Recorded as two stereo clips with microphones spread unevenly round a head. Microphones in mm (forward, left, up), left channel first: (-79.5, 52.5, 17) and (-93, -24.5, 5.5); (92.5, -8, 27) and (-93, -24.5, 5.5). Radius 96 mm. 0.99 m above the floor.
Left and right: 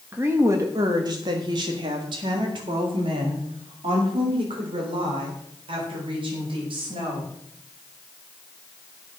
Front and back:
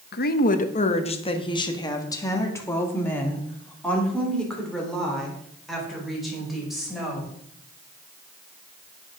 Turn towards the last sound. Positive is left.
turn(degrees=-85)